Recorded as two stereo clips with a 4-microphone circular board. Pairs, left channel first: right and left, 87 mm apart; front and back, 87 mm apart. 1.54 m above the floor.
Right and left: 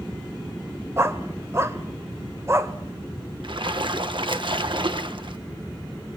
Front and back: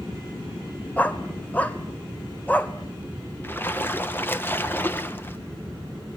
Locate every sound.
1.0 s a dog barking: 60° left, 1.5 m
3.4 s a splash: 65° left, 1.8 m